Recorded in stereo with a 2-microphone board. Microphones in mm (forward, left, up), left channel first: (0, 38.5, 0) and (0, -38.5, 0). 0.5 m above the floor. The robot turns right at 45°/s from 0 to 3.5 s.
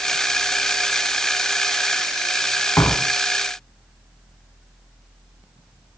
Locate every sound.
2.8 s a door slam: 40° left (ahead or behind), 2.5 m; by 3.1 s 25° left (ahead or behind), 2.5 m